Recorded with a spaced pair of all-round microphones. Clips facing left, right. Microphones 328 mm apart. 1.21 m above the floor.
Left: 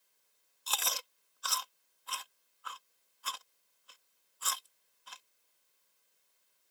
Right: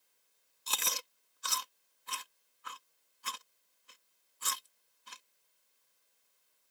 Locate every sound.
0.7 s chewing: 30° right (ahead or behind)